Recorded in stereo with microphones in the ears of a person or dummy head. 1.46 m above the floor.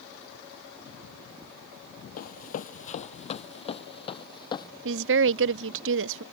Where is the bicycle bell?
No bicycle bell in this recording.